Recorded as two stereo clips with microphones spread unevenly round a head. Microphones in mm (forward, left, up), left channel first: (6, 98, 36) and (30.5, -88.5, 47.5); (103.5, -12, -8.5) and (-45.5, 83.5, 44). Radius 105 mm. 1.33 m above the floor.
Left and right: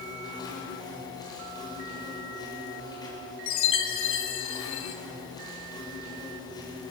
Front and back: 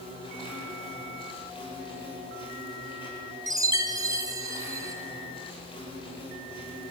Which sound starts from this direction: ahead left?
An insect, at 0.0 s.